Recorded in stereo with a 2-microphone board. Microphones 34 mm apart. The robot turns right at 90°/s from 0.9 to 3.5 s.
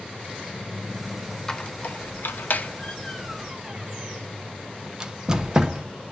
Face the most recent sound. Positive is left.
turn(degrees=-20)  # may be behind; listen again after turning